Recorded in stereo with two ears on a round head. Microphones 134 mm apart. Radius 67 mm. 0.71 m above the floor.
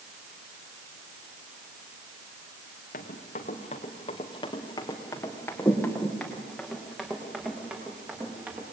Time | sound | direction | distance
2.9 | running footsteps | 60° left (ahead or behind) | 3.5 m